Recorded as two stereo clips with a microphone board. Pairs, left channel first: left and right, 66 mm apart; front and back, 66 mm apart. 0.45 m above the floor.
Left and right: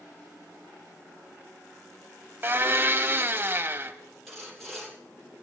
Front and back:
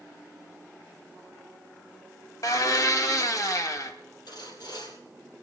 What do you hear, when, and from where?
2.4 s a blender: 35° right, 0.8 m
4.3 s sawing: 5° left, 4 m